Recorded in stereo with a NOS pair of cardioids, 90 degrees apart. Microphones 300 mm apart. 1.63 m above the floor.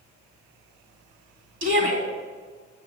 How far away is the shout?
About 3 m.